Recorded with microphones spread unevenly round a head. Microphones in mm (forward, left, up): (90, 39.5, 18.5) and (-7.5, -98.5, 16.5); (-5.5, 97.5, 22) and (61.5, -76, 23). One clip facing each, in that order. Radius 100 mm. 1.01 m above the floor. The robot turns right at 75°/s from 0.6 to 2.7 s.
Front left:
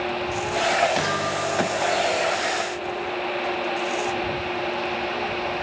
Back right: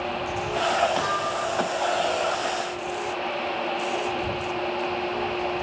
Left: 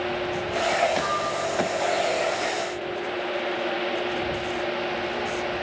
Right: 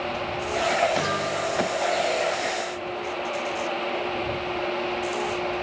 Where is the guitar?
15° right; by 3.1 s 115° left.